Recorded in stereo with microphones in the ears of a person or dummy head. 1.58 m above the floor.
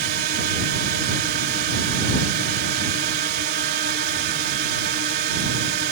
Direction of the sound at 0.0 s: 55° right (ahead or behind).